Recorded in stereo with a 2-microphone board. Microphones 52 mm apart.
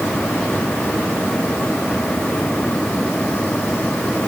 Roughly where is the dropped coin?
I don't hear a dropped coin.